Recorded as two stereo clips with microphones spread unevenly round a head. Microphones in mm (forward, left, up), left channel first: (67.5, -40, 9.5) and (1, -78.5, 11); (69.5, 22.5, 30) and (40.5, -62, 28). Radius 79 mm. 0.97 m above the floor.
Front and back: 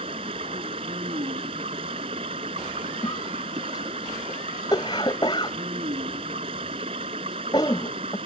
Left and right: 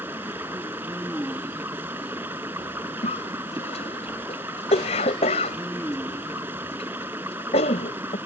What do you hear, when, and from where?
0.0 s running water: 175° left
3.0 s a cough: 95° left